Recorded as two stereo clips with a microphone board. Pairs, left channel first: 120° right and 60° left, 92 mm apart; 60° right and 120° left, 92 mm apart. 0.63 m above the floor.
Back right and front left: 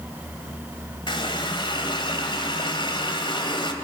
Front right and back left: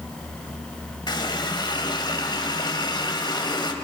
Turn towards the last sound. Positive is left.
turn(degrees=-95)